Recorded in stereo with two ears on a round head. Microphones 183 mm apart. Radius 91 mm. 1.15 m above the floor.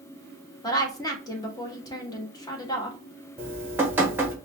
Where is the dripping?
10° right (ahead or behind), 1.1 m.